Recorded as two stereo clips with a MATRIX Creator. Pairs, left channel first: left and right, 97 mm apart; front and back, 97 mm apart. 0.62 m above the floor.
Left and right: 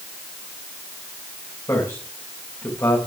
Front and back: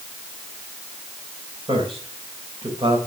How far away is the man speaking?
About 3.5 m.